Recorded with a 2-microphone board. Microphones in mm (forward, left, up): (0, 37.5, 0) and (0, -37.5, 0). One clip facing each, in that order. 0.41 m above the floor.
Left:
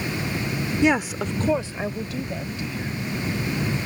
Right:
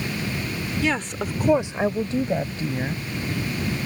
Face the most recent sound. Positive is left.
turn(degrees=-40)  # may be behind; listen again after turning